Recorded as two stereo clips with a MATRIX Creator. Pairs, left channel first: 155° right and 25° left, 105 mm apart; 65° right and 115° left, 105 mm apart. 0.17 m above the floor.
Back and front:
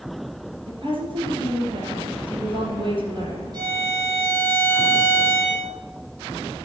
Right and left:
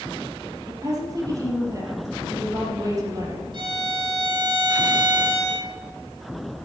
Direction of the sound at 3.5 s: 75° left.